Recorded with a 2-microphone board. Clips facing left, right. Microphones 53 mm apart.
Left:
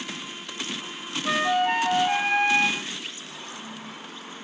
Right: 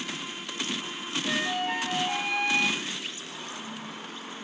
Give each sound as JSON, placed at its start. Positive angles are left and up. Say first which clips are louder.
{"t": 1.2, "sound": "a flute", "louder": "left 7 dB", "side_deg": 50, "distance_m": 0.7}